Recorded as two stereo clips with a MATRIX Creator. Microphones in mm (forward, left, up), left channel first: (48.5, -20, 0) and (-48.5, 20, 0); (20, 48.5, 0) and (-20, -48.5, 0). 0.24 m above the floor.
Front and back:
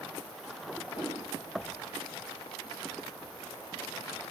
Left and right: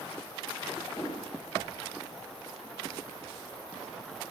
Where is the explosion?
25° left, 7.5 m.